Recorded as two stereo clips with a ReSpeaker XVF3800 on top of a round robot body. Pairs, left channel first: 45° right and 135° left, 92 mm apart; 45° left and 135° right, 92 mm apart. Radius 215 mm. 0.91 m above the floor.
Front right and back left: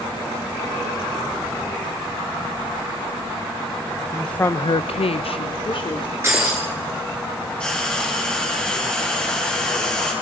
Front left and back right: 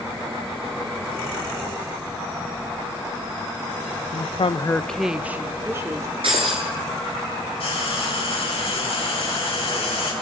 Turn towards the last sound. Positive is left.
turn(degrees=35)